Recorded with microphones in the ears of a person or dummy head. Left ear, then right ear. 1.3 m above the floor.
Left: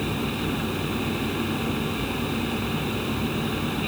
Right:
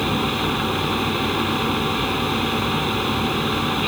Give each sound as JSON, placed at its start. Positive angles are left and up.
{"t": 0.0, "sound": "a fan", "side_deg": -40}